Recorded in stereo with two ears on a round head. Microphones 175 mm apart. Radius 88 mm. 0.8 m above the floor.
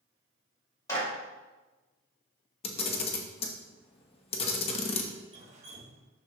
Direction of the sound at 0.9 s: 20° left (ahead or behind).